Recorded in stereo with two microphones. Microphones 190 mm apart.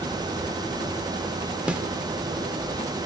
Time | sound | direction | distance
1.7 | a snare drum | 5° right (ahead or behind) | 0.6 m